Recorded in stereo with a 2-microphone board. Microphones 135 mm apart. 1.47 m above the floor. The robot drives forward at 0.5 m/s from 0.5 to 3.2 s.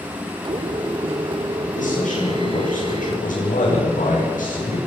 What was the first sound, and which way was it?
A man speaking, 75° left (ahead or behind).